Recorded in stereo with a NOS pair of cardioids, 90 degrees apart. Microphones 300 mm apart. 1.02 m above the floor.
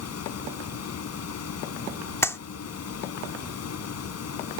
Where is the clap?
10° left.